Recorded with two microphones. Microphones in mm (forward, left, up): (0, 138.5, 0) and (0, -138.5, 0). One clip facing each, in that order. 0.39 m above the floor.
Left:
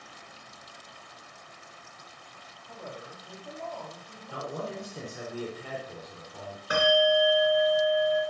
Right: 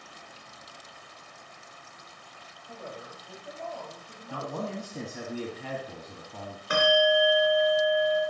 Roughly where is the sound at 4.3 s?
Right.